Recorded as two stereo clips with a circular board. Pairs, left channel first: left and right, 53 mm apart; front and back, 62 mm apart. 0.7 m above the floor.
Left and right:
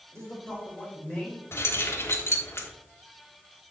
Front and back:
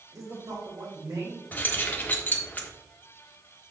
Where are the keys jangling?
60° left, 1.1 m.